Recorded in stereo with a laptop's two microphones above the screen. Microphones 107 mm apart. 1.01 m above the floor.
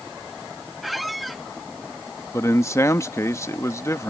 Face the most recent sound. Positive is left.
turn(degrees=25)  # may be behind; listen again after turning